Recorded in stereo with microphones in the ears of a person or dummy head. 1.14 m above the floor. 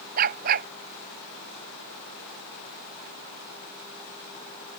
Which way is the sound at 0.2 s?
50° right (ahead or behind).